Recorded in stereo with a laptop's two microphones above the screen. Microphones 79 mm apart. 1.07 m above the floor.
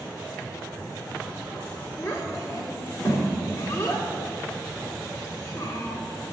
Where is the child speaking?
40° left (ahead or behind), 1.8 m.